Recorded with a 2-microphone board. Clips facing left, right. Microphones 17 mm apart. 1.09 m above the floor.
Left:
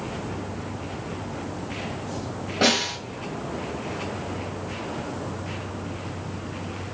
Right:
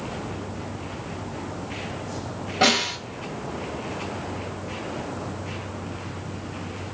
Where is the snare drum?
15° right (ahead or behind), 1.8 m.